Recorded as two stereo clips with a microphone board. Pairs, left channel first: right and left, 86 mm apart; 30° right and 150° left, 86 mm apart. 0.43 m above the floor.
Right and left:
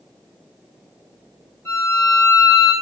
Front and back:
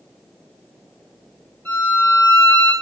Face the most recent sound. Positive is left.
turn(degrees=-85)